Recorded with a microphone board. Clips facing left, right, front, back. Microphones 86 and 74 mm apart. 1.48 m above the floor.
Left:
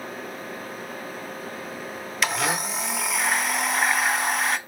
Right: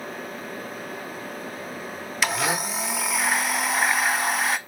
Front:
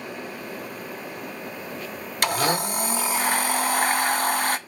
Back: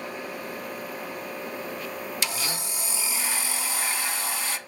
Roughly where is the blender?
Ahead.